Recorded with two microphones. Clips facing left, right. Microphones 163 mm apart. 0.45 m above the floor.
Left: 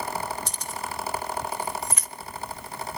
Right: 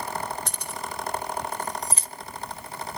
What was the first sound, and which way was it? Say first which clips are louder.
Keys jangling: left 1 dB; 55° right (ahead or behind).